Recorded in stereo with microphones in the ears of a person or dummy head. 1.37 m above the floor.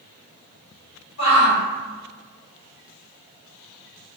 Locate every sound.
1.2 s a shout: 75° left (ahead or behind), 1.5 m